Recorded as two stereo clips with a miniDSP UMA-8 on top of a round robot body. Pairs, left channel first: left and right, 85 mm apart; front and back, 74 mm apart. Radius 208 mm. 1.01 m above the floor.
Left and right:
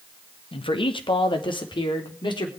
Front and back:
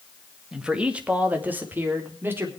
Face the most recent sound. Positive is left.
turn(degrees=120)